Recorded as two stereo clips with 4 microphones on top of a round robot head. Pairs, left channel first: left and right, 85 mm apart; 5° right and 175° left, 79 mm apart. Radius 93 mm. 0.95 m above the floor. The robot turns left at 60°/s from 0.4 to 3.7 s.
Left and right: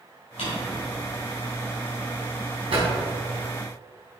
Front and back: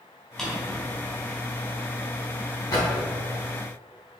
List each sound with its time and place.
0.4 s a drawer: 75° left, 3 m; by 2.8 s 70° right, 3 m